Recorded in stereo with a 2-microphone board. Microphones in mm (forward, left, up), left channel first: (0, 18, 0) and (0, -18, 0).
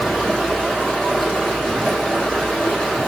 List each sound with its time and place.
0.0 s running water: 20° left (ahead or behind), 1.8 m